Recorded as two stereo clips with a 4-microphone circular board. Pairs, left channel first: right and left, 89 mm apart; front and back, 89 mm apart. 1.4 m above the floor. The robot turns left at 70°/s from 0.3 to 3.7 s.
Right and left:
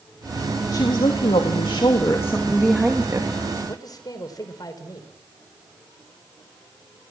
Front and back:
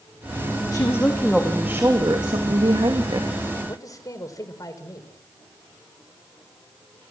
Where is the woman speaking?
45° right, 2.5 m; by 3.4 s 125° left, 2.5 m.